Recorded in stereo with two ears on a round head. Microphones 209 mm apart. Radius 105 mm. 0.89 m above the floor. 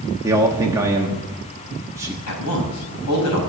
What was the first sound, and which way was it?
A man speaking, 15° right (ahead or behind).